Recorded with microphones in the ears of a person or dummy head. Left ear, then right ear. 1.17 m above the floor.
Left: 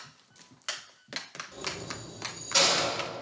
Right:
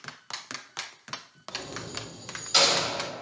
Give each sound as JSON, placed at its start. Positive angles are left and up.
{"t": 1.5, "sound": "keys jangling", "side_deg": -30, "distance_m": 4.5}